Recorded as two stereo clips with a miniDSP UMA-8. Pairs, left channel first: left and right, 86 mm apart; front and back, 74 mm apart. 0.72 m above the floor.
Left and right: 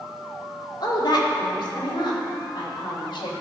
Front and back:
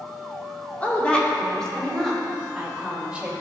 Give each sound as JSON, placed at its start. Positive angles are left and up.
{"t": 0.8, "sound": "a woman speaking", "azimuth_deg": 65, "distance_m": 1.8}